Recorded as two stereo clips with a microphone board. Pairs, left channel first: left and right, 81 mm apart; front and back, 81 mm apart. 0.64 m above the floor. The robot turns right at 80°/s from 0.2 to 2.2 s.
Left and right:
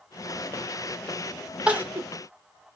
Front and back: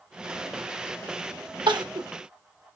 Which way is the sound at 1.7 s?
165° right.